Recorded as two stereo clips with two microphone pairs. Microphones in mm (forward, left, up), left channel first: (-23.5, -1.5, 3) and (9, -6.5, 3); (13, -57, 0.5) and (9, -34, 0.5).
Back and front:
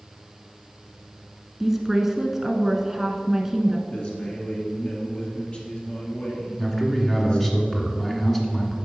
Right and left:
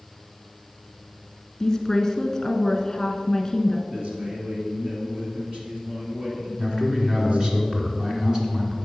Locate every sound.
1.6 s a woman speaking: 75° right, 1.2 m
3.9 s a man speaking: 130° left, 2.5 m
6.6 s a man speaking: 110° left, 1.5 m